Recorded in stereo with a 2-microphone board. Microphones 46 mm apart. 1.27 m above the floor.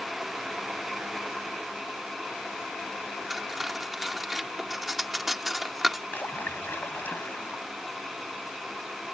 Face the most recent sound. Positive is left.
turn(degrees=50)  # may be behind; listen again after turning